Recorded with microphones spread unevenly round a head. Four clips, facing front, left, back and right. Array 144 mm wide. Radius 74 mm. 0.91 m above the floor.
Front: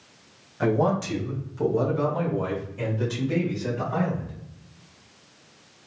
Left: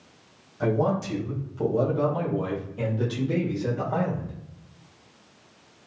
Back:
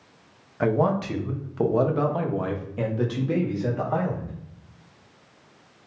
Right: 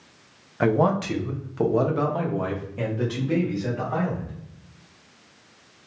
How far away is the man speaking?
About 1.1 m.